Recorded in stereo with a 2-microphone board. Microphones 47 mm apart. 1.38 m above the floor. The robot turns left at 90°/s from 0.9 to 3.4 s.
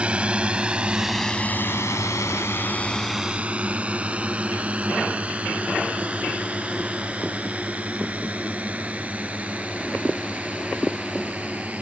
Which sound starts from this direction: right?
A drone, at 0.0 s.